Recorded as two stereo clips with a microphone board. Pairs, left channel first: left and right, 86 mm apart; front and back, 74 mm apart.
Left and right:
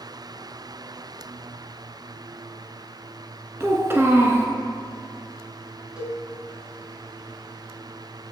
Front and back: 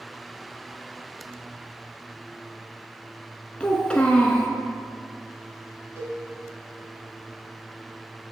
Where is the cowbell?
160° right, 2 m.